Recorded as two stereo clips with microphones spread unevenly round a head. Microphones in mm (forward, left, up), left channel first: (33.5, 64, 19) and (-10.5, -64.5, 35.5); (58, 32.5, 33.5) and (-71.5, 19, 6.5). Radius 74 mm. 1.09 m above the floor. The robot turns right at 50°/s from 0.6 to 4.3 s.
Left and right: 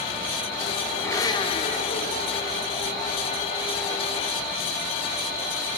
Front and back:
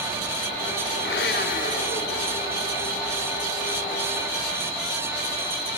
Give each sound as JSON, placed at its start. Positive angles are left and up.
{"t": 1.0, "sound": "a blender", "azimuth_deg": -5, "distance_m": 2.5}